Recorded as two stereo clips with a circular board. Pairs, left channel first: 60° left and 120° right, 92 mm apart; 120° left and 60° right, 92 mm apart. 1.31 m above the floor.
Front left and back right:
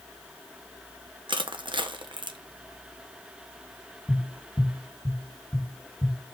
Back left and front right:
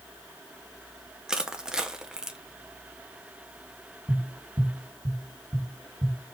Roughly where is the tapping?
Ahead right.